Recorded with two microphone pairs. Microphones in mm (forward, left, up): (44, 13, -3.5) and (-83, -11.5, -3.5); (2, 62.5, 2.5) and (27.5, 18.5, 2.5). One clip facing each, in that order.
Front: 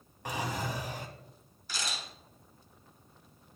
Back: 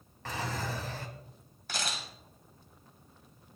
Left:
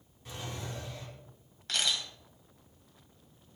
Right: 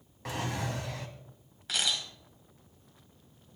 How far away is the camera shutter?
About 2.5 m.